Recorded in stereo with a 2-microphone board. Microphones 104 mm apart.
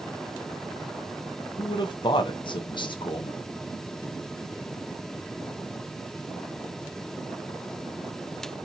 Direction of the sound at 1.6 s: 55° left (ahead or behind).